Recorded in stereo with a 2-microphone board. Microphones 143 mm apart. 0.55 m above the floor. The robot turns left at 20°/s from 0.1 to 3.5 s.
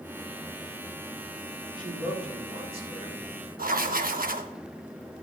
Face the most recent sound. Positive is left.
turn(degrees=-85)